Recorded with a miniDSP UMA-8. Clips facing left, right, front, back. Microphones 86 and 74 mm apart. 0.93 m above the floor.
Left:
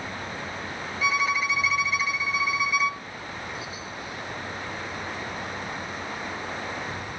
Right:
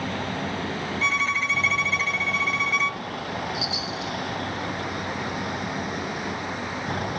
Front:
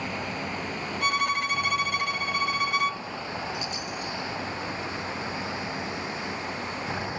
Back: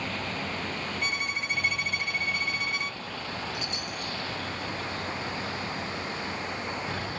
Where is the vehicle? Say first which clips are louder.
Right 6 dB, front 1 dB; 75° right.